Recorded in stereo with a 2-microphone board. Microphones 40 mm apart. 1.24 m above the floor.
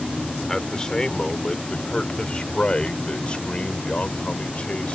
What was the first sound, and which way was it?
A man speaking, 15° left (ahead or behind).